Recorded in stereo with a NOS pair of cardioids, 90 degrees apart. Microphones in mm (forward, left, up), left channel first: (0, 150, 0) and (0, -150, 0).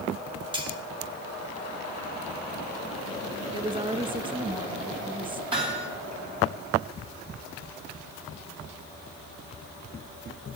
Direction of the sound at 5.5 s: 15° right.